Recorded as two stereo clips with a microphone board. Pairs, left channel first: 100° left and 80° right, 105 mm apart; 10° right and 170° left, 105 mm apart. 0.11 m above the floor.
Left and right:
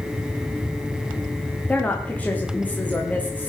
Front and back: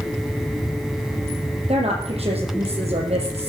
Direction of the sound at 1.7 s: 175° left.